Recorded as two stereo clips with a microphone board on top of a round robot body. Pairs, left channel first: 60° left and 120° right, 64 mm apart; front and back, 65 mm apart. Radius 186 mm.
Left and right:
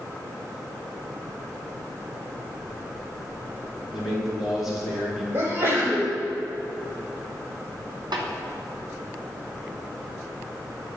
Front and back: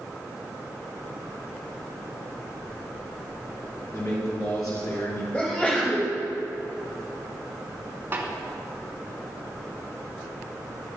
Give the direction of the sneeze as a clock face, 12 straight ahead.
2 o'clock.